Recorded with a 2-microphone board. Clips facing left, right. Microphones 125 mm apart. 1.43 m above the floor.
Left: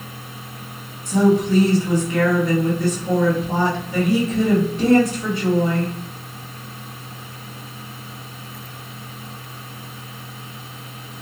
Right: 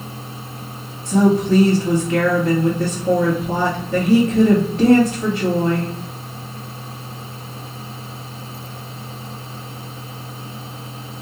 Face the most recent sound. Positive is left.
turn(degrees=-70)  # may be behind; listen again after turning